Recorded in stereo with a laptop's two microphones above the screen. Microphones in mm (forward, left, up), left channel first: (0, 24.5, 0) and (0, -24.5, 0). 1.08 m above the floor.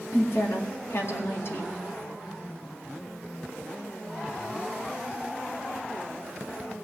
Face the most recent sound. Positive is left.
turn(degrees=60)  # may be behind; listen again after turning